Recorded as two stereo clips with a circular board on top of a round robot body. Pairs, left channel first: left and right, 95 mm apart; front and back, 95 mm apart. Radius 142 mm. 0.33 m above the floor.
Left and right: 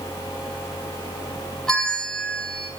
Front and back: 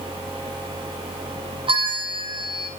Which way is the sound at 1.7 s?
175° left.